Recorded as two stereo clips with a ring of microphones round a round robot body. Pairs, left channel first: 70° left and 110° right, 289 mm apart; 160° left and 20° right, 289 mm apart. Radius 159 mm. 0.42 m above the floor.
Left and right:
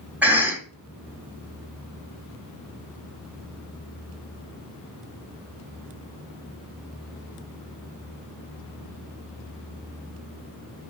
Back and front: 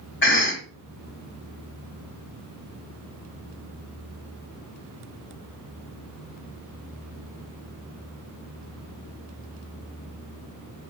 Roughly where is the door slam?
No door slam in this recording.